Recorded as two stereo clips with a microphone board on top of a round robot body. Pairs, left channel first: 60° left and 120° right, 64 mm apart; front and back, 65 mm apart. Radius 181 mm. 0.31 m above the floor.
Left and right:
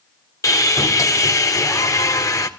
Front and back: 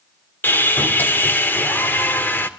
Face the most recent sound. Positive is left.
turn(degrees=55)